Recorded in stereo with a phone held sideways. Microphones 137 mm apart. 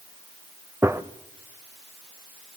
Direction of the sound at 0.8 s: 20° right (ahead or behind).